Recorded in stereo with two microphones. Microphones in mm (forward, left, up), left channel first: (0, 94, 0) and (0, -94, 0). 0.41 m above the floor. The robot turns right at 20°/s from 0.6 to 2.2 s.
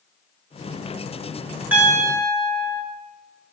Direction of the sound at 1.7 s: 10° right (ahead or behind).